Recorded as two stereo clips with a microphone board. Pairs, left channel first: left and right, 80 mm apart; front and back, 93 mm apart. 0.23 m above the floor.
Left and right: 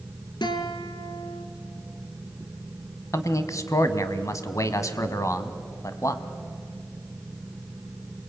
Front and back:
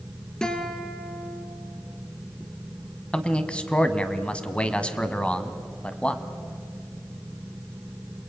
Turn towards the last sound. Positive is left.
turn(degrees=75)